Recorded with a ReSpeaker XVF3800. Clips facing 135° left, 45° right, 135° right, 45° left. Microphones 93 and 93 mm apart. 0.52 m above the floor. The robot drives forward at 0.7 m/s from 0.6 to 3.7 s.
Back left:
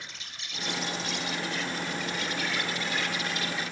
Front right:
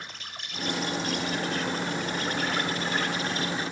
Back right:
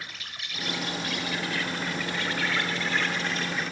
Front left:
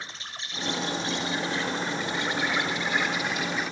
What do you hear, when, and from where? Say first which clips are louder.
0.0 s an insect: front right 3 dB, front left 1 dB; 15° right, 3.5 m; by 3.7 s 35° right, 2 m